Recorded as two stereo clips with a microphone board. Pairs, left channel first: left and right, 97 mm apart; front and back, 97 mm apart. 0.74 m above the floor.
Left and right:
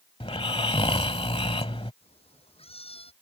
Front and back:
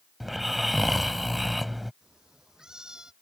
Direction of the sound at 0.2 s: 90° left.